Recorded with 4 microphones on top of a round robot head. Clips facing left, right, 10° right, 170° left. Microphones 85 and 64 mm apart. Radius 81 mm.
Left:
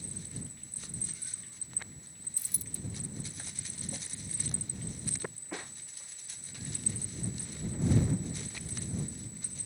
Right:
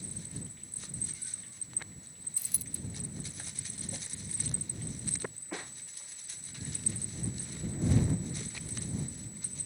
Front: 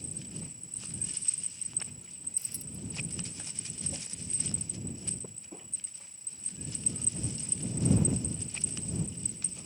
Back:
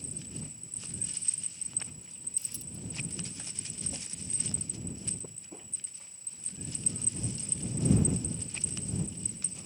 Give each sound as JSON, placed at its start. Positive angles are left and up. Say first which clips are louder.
{"t": 2.4, "sound": "a dropped coin", "louder": "even, front 1 dB", "azimuth_deg": -75}